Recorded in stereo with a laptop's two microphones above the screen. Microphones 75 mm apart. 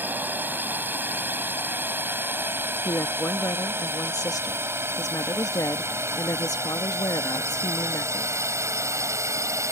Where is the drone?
25° right (ahead or behind); by 9.7 s 45° right (ahead or behind).